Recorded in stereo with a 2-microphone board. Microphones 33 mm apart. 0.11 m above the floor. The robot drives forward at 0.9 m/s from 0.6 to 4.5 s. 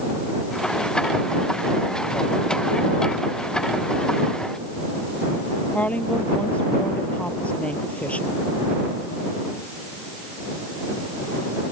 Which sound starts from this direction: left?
A woman speaking, at 5.7 s.